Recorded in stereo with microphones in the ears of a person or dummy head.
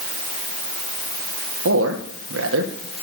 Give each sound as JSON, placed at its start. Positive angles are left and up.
{"t": 1.6, "sound": "a man speaking", "side_deg": -90, "distance_m": 1.6}